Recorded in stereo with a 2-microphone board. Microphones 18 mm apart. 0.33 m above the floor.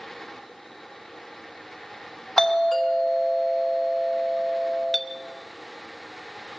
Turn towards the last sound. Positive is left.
turn(degrees=-15)  # may be behind; listen again after turning